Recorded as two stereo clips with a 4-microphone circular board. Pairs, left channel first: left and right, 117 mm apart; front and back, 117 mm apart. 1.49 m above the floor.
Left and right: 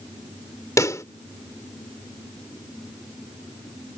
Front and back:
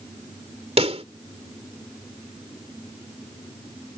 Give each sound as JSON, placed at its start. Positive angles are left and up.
{"t": 0.8, "sound": "a pop", "azimuth_deg": 150}